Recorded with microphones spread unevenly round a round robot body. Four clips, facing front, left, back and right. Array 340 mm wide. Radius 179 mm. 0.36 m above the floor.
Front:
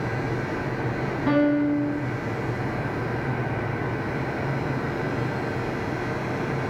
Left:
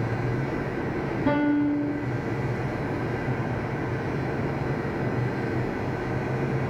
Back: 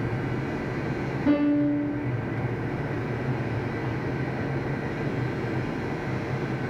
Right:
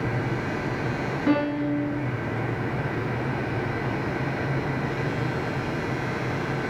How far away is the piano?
About 2 m.